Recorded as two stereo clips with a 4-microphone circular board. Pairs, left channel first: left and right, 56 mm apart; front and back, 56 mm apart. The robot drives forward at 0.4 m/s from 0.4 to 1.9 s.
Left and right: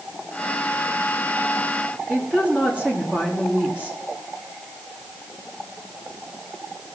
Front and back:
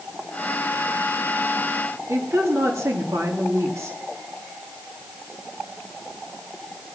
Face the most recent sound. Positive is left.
turn(degrees=-160)